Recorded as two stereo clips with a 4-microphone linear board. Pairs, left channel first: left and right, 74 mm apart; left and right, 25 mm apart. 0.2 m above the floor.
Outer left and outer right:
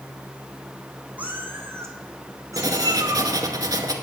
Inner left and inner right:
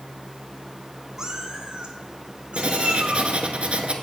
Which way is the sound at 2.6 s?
60° right (ahead or behind).